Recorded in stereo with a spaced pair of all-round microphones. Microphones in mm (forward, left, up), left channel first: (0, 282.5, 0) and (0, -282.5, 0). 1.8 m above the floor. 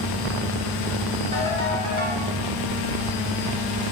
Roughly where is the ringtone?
Left.